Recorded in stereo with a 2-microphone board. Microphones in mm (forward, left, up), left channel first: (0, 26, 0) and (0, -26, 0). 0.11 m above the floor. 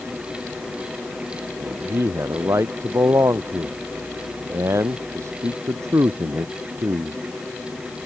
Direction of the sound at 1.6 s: 65° right (ahead or behind).